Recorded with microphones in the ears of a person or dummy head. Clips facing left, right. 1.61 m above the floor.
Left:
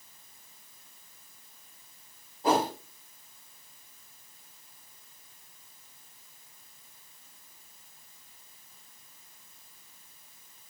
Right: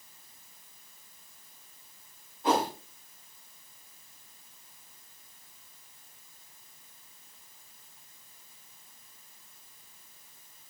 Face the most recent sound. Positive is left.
turn(degrees=35)  # may be behind; listen again after turning